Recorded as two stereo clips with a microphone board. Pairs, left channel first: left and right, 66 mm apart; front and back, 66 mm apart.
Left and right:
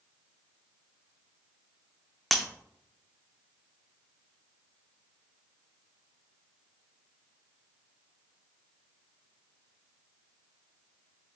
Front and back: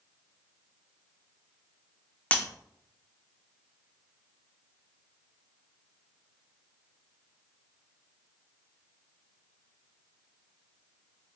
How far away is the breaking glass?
About 0.6 m.